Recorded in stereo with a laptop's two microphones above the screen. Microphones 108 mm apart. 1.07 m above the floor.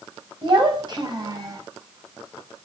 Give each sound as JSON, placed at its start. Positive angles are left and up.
{"t": 0.4, "sound": "a child speaking", "side_deg": -50, "distance_m": 4.5}